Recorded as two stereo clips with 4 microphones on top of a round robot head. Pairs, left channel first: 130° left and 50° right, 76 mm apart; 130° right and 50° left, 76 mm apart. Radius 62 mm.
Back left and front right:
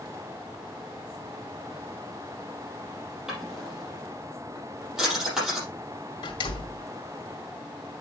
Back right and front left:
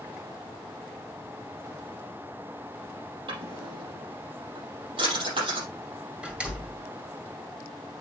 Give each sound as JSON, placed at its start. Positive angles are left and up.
{"t": 3.3, "sound": "a drawer", "azimuth_deg": 35, "distance_m": 5.5}
{"t": 6.2, "sound": "a door slam", "azimuth_deg": 130, "distance_m": 2.0}